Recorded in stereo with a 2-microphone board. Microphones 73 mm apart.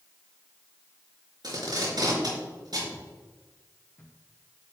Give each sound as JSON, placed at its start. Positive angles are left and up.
{"t": 1.4, "sound": "tape being pulled", "side_deg": -70, "distance_m": 5.0}
{"t": 2.9, "sound": "footsteps", "side_deg": 50, "distance_m": 3.0}